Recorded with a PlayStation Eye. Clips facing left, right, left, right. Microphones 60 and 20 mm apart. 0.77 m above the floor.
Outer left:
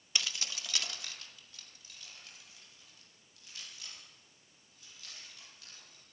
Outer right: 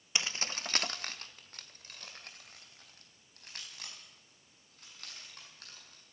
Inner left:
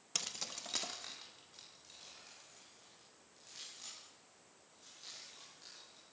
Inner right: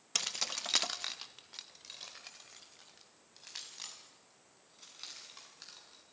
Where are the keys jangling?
25° right (ahead or behind), 0.6 m; by 6.0 s 60° right (ahead or behind), 7.5 m.